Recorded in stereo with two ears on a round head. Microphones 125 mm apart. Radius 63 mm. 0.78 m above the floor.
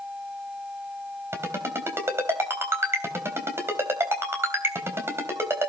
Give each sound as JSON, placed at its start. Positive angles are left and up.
{"t": 1.3, "sound": "a ringtone", "side_deg": -20, "distance_m": 3.5}